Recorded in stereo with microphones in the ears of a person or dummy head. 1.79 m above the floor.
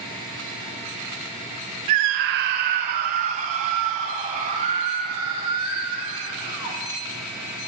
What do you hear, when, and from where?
1.9 s a scream: 35° right (ahead or behind), 0.5 m